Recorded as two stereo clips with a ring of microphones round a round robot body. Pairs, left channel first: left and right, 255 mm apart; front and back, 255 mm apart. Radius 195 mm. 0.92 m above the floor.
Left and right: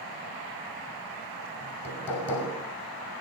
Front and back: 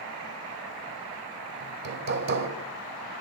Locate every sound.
1.6 s hammering: 175° left, 2.5 m